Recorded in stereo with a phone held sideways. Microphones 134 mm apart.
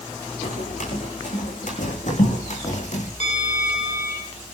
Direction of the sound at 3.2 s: 60° left (ahead or behind).